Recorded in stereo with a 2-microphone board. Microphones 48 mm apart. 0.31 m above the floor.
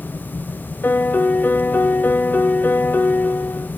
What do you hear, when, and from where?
0.8 s a piano: 45° left (ahead or behind), 0.6 m